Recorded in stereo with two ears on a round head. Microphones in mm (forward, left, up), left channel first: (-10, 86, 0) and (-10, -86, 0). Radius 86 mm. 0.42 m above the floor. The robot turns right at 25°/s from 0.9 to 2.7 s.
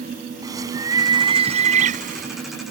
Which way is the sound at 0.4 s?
160° right.